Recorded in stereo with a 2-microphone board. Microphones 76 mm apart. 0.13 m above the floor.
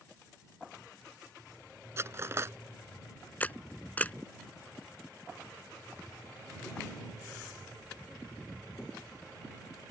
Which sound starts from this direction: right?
Cutlery clinking, at 2.0 s.